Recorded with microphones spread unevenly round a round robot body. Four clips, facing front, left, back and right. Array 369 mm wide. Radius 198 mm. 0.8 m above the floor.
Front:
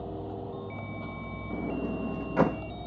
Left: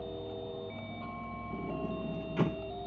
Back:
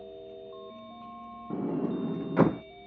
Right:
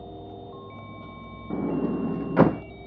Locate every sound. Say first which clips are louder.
0.0 s a vehicle: even, front 6 dB; 10° right
1.5 s a sliding door: right 12 dB, back 2 dB; 70° right